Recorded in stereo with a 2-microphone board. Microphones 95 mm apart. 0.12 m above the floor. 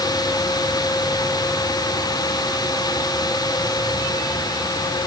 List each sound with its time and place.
Only background noise.